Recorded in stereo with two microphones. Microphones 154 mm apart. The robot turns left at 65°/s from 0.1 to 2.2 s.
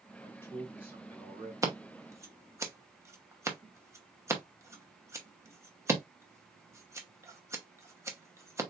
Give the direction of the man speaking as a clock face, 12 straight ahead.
11 o'clock.